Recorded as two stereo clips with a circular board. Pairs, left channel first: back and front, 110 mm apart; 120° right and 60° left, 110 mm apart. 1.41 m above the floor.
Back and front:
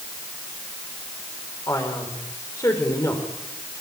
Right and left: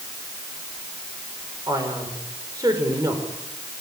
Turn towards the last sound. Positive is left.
turn(degrees=120)